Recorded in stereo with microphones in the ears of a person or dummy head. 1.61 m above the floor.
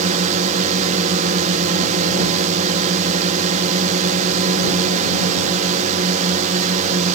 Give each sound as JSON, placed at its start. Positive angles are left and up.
{"t": 0.0, "sound": "a drone", "side_deg": -35}